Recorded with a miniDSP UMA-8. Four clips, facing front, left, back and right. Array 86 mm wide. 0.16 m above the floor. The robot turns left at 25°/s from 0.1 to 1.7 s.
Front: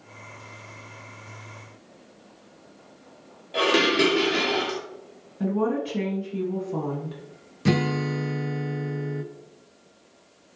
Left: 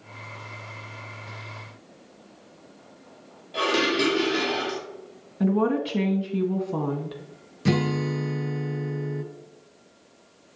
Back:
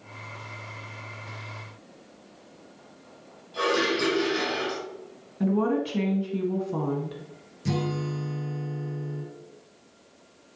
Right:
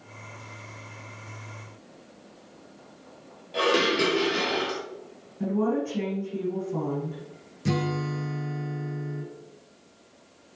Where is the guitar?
30° left, 1.0 m.